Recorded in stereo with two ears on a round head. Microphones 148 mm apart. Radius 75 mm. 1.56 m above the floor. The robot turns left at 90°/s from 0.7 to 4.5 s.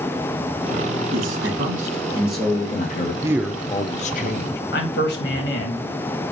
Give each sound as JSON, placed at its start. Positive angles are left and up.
{"t": 1.1, "sound": "a man speaking", "azimuth_deg": -70, "distance_m": 2.5}
{"t": 3.2, "sound": "a man speaking", "azimuth_deg": -155, "distance_m": 0.7}
{"t": 4.7, "sound": "a man speaking", "side_deg": 70, "distance_m": 2.5}